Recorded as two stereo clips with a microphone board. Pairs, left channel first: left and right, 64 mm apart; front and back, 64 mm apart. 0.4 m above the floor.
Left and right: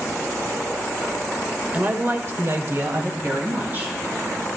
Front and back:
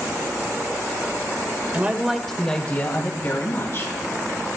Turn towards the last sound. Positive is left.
turn(degrees=-30)